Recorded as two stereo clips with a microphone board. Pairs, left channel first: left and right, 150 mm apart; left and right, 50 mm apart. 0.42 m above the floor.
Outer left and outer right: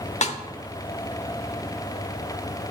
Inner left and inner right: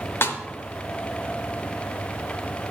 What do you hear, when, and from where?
0.2 s a snare drum: 50° left (ahead or behind), 0.7 m